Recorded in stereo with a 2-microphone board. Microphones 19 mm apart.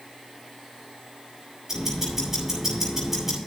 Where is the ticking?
20° right (ahead or behind), 8.5 m.